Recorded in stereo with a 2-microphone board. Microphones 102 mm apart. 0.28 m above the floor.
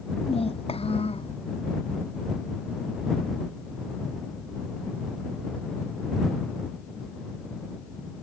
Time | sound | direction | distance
0.3 | a child speaking | 75° left (ahead or behind) | ?